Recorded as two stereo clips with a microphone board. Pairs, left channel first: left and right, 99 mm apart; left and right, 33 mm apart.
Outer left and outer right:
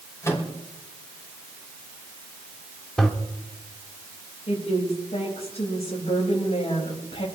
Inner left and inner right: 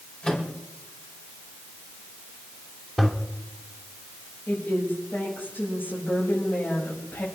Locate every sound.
0.2 s a microwave: 30° left (ahead or behind), 4.5 m
3.0 s a toilet flushing: 5° left (ahead or behind), 2 m
4.5 s a woman speaking: 90° left, 6.5 m